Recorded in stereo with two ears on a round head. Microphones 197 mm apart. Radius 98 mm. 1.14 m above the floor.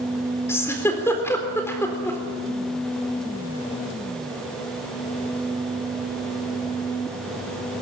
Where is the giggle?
10° left (ahead or behind), 3.5 m.